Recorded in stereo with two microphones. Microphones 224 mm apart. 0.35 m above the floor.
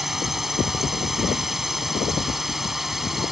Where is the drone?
Centre (ahead or behind).